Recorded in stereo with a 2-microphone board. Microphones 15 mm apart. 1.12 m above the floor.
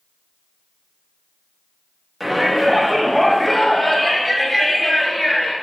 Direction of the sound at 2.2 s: 5° right (ahead or behind).